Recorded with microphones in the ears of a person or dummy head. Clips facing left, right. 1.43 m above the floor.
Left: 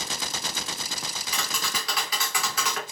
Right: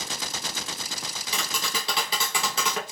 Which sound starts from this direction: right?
Tapping, at 1.3 s.